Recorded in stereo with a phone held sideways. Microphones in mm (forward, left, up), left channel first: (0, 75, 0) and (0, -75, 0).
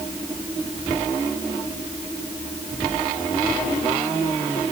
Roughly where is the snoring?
I don't hear snoring.